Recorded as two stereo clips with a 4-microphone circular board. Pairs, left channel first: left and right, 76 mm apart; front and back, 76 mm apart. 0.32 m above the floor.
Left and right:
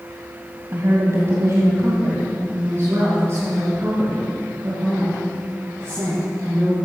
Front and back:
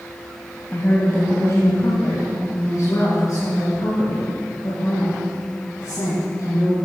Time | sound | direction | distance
0.7 | a woman speaking | 50° right | 1.8 m